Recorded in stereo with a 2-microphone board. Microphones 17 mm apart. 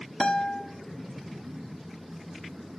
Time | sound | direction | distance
0.2 | a guitar | 55° left (ahead or behind) | 1.3 m